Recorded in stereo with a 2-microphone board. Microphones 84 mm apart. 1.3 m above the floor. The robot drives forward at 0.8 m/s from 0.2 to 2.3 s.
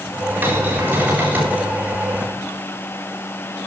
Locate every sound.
0.4 s a cupboard door: 25° right (ahead or behind), 6.5 m